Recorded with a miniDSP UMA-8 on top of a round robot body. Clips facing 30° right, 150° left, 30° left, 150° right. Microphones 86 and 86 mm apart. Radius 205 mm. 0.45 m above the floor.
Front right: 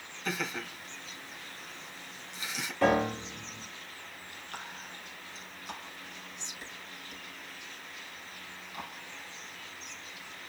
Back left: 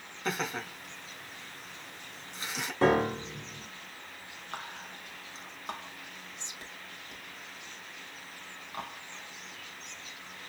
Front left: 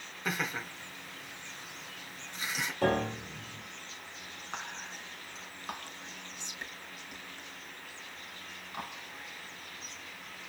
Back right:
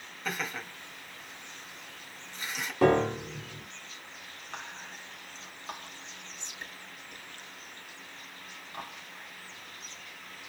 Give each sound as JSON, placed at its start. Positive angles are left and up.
{"t": 0.2, "sound": "laughter", "azimuth_deg": 110, "distance_m": 3.5}
{"t": 2.8, "sound": "a piano", "azimuth_deg": -145, "distance_m": 1.3}
{"t": 4.5, "sound": "whispering", "azimuth_deg": 110, "distance_m": 4.0}